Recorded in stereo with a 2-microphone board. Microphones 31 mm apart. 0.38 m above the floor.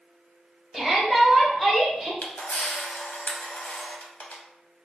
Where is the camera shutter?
70° left (ahead or behind), 0.6 m.